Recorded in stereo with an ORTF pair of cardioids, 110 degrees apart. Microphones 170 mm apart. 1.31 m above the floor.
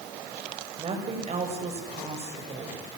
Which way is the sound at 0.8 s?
35° right.